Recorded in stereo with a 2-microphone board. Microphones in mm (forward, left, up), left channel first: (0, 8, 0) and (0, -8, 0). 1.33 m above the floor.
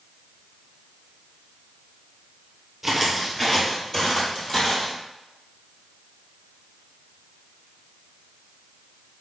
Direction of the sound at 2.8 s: 5° right (ahead or behind).